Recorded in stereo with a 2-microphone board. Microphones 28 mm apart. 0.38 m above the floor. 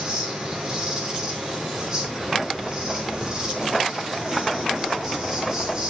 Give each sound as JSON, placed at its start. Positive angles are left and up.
{"t": 0.0, "sound": "an insect", "side_deg": -30, "distance_m": 5.5}